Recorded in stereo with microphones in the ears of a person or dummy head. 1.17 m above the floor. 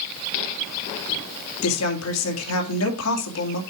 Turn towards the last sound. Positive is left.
turn(degrees=80)